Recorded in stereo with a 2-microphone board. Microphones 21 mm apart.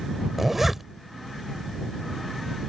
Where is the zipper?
20° right (ahead or behind).